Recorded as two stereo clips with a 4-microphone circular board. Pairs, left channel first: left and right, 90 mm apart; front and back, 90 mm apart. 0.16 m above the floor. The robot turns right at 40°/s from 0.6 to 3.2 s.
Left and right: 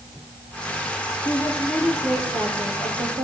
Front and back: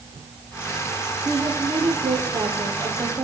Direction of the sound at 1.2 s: 150° left.